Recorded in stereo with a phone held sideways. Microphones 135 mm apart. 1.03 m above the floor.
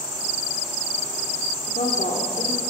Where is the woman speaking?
80° left, 2 m.